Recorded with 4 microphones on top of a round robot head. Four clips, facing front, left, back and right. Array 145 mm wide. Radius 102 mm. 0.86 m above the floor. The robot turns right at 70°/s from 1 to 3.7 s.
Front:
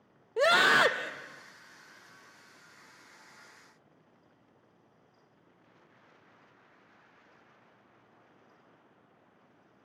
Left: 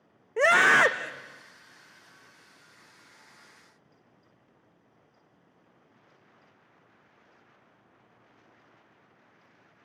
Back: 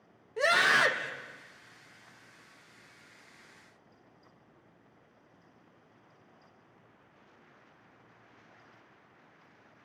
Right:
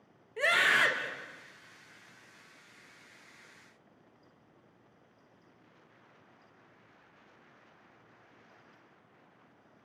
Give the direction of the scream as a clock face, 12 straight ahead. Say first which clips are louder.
Left 8 dB, front 3 dB; 10 o'clock.